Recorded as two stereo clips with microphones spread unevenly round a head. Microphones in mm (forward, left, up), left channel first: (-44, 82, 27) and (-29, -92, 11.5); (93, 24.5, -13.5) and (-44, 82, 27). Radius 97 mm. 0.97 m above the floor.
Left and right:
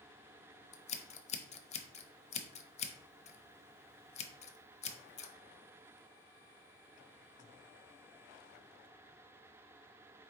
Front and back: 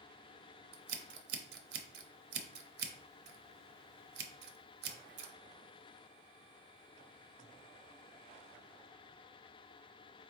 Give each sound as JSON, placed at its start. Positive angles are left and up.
{"t": 0.7, "sound": "scissors", "azimuth_deg": 150, "distance_m": 0.6}